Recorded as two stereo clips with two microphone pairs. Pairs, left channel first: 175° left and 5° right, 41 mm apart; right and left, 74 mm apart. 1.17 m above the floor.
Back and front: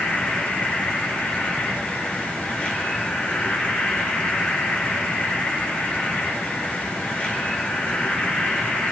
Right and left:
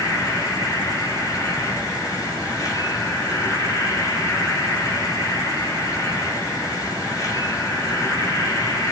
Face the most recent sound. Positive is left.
turn(degrees=-125)